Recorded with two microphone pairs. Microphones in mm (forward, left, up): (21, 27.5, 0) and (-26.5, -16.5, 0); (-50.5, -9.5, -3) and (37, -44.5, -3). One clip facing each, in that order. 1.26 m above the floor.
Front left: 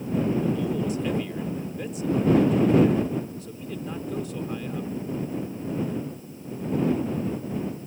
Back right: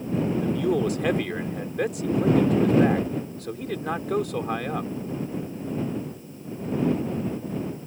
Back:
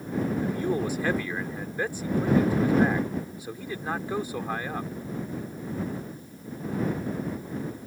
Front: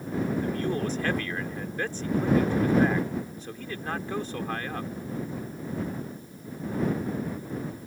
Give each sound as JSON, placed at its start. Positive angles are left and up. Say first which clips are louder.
{"t": 0.4, "sound": "a man speaking", "louder": "back right 2 dB, back 1 dB", "azimuth_deg": -125}